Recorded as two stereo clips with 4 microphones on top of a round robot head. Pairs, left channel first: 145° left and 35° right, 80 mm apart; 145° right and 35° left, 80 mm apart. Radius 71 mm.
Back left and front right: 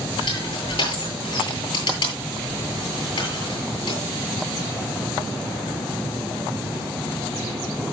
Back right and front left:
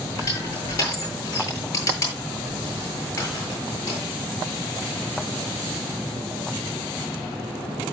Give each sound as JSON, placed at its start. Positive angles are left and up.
{"t": 0.2, "sound": "crushing", "azimuth_deg": 165, "distance_m": 8.0}